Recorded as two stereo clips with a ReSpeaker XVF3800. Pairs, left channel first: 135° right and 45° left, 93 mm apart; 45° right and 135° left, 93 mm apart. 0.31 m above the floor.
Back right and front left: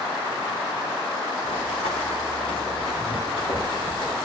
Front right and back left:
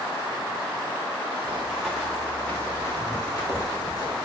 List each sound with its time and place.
1.4 s running footsteps: 150° right, 1.7 m; by 4.2 s 95° right, 4.5 m